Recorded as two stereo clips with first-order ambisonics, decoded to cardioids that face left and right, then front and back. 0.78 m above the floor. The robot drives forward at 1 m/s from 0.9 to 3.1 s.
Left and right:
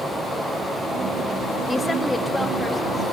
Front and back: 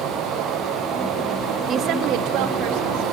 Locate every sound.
1.7 s a woman speaking: 155° left, 0.5 m; by 3.1 s 175° left, 1.7 m